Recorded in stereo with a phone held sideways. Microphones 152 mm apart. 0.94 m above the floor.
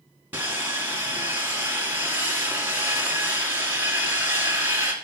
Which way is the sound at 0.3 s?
15° right (ahead or behind).